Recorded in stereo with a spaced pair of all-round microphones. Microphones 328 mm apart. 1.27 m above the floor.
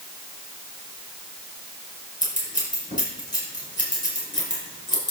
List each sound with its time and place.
2.2 s scissors: 25° left (ahead or behind), 4.5 m